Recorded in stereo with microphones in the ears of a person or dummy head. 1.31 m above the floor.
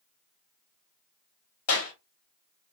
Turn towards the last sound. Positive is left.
turn(degrees=80)